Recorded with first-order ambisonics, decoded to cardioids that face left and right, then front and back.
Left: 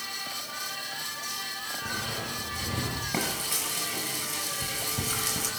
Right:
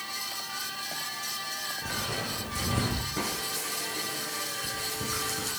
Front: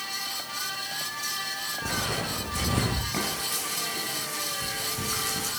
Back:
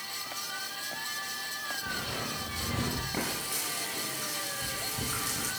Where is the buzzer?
No buzzer in this recording.